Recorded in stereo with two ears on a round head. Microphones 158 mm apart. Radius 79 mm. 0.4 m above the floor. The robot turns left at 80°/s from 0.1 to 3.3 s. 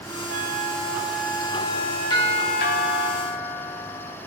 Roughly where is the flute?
Right.